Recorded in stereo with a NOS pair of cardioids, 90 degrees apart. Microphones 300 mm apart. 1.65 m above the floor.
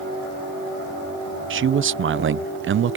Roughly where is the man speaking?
Ahead right.